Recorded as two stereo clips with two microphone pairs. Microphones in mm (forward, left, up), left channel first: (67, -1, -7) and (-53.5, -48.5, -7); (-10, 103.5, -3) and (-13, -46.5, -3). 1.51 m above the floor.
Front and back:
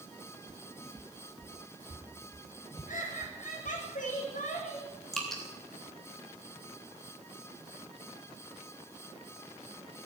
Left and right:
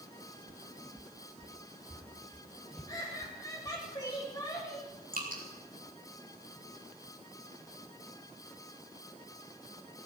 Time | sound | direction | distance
0.5 | footsteps | 170° right | 1.6 m
2.9 | laughter | 25° left | 7 m
5.1 | dripping | 65° right | 3 m